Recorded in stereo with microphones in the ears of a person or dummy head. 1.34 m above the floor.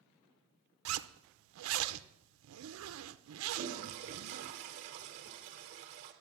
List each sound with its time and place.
0.8 s a zipper: 80° right, 0.7 m
3.5 s a toilet flushing: 30° right (ahead or behind), 1.2 m